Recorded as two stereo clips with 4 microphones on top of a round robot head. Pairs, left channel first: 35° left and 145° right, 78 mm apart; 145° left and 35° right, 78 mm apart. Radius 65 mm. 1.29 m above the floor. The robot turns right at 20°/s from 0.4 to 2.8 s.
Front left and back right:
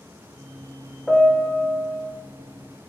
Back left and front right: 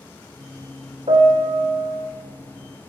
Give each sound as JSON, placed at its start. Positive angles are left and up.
{"t": 1.1, "sound": "a piano", "azimuth_deg": -50, "distance_m": 1.4}